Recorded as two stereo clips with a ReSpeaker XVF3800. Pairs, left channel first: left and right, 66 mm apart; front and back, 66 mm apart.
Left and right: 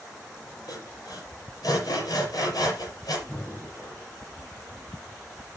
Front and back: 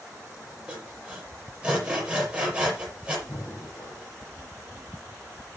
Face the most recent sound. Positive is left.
turn(degrees=25)